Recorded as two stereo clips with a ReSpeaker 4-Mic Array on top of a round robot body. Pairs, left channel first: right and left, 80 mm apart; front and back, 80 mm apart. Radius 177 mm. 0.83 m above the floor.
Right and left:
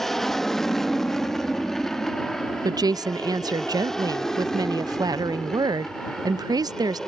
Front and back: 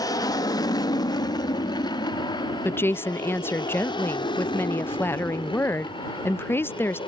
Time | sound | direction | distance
0.0 | an aircraft | 5° right | ?
2.6 | a woman speaking | 60° left | ?